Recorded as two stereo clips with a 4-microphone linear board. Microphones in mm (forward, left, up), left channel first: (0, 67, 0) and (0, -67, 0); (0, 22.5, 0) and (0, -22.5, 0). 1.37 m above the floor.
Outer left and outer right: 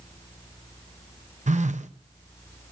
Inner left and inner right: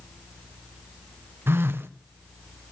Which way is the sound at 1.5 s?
65° right (ahead or behind).